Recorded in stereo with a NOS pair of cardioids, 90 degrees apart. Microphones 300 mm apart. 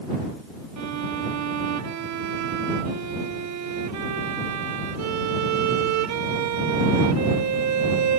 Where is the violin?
65° right.